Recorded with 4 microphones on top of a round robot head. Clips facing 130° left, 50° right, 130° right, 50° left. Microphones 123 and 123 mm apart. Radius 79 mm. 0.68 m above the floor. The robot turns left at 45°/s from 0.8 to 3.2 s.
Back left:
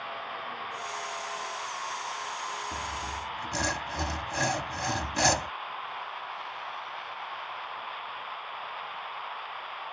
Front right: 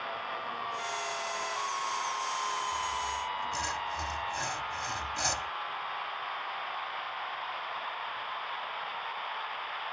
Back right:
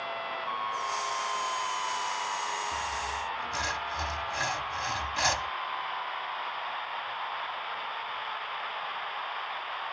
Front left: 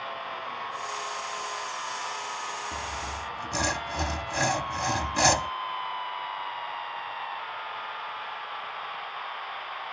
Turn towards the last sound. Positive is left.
turn(degrees=95)